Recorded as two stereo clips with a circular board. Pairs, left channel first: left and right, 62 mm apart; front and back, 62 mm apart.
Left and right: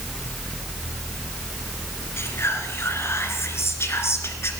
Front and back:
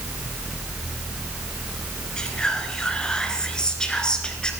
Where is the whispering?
70° left, 1.9 m.